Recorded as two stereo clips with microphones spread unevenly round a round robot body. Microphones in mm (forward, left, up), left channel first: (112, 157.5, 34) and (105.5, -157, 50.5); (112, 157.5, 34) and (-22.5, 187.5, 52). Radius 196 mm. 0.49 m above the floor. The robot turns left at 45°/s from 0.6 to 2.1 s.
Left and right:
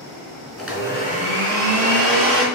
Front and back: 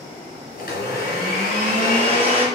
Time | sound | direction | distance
0.6 | a blender | straight ahead | 3 m